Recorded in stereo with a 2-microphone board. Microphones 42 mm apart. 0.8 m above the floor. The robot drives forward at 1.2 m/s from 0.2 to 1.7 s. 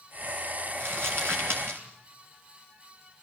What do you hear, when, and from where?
0.8 s crumpling: 90° right, 6.5 m; by 1.8 s 80° right, 6.5 m